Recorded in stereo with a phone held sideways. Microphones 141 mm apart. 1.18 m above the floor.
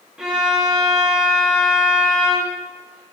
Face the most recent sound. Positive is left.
turn(degrees=-5)  # may be behind; listen again after turning